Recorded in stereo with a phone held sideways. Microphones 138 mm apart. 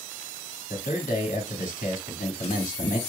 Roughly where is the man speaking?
Left.